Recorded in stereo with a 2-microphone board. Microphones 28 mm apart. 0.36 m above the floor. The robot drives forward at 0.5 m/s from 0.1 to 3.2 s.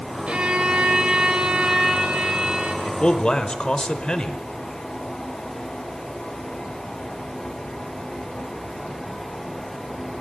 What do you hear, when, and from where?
0.3 s a violin: 45° right (ahead or behind), 1.5 m; by 2.8 s 35° right (ahead or behind), 1.8 m
2.9 s a man speaking: 30° left (ahead or behind), 0.9 m